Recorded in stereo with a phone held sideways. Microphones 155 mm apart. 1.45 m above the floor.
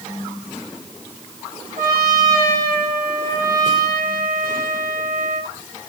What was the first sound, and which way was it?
A trumpet, 80° right.